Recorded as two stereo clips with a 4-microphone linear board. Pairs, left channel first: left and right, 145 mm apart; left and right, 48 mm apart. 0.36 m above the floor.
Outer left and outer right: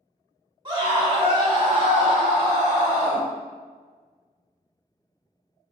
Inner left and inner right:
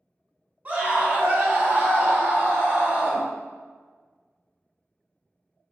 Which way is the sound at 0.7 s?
30° right (ahead or behind).